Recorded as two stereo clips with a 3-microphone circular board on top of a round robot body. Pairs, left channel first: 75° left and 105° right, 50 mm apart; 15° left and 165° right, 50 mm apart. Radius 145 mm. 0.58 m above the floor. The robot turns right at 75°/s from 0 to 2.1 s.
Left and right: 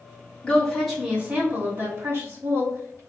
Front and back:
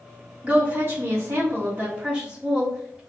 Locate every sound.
0.4 s a woman speaking: 140° left, 1.9 m; by 3.0 s 100° right, 1.9 m